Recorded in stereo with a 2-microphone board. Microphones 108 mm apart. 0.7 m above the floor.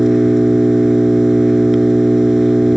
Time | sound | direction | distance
0.0 | an engine running | centre (ahead or behind) | ?